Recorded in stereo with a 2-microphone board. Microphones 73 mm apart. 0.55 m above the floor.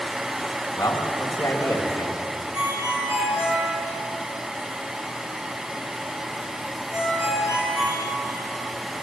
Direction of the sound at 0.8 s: 35° left (ahead or behind).